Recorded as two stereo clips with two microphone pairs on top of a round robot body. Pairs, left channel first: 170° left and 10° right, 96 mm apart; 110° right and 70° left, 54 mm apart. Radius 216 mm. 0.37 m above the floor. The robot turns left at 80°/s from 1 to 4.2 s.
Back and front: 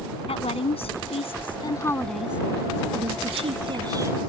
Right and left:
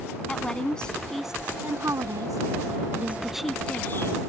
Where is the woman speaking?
175° left; by 4.2 s 80° right.